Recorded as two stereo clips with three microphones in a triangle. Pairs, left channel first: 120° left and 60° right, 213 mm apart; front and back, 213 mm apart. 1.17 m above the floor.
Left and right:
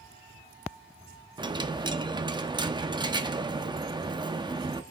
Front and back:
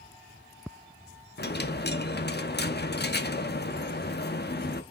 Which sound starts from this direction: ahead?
A dropped coin, at 1.4 s.